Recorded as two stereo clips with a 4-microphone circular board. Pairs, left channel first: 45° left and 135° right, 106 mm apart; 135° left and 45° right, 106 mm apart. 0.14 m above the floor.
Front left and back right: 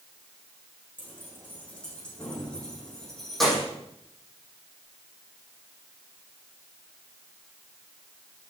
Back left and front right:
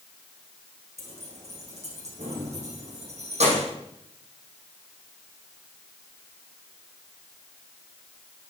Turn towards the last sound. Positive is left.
turn(degrees=-45)